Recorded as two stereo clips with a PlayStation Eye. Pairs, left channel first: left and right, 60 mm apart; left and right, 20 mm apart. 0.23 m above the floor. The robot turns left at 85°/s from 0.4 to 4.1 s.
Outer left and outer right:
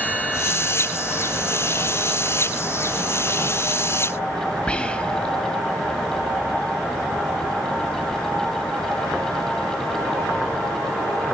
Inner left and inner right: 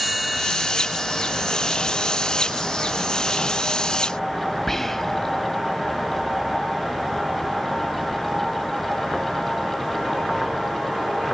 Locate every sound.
4.7 s whispering: 20° left (ahead or behind), 1.2 m